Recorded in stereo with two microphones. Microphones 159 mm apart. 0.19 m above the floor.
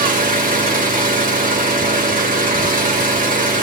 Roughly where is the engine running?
Right.